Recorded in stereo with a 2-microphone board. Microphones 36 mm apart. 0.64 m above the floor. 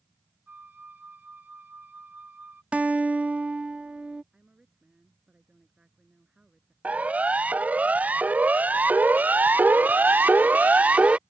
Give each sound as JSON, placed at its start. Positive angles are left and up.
{"t": 0.5, "sound": "a flute", "side_deg": -50}
{"t": 2.7, "sound": "a guitar", "side_deg": -30}
{"t": 4.3, "sound": "a woman speaking", "side_deg": -25}
{"t": 6.8, "sound": "a siren", "side_deg": -40}